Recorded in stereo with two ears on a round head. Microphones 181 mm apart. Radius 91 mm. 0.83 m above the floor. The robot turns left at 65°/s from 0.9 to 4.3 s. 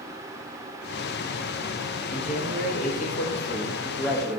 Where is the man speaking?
140° left, 1.2 m; by 4.4 s straight ahead, 1.2 m.